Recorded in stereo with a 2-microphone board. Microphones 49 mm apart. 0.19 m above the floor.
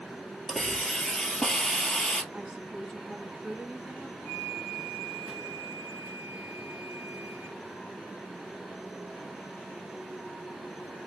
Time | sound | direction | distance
0.5 | a hiss | 5° left (ahead or behind) | 1.3 m
2.3 | a woman speaking | 20° right (ahead or behind) | 1.6 m
4.2 | a flute | 30° left (ahead or behind) | 1.1 m